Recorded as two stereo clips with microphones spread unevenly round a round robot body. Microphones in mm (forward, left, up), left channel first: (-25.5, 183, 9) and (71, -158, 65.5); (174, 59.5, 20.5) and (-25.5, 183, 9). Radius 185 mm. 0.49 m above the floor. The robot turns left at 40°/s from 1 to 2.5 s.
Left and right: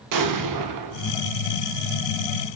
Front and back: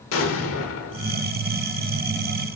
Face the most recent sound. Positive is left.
turn(degrees=-100)